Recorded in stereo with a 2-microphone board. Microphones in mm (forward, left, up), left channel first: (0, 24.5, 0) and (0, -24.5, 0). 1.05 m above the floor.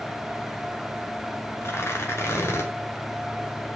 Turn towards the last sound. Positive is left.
turn(degrees=55)  # may be behind; listen again after turning